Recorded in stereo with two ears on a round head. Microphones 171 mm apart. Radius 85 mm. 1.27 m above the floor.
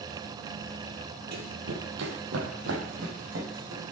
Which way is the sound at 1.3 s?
60° right (ahead or behind).